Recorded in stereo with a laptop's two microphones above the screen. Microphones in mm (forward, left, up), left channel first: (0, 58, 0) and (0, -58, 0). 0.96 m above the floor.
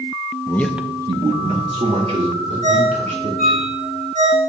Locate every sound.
0.5 s a man speaking: 30° left (ahead or behind), 0.6 m; by 3.6 s 80° right, 3.5 m
2.6 s a ringtone: 75° right (ahead or behind), 2 m